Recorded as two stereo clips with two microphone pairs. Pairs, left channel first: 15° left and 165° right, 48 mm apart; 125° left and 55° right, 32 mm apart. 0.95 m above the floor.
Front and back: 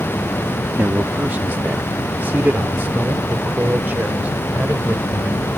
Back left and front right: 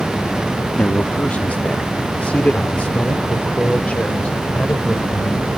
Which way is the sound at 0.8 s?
150° left.